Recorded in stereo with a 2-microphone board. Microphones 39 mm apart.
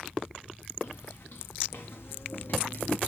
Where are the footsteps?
75° left (ahead or behind), 3 m; by 3.0 s 40° left (ahead or behind), 0.9 m.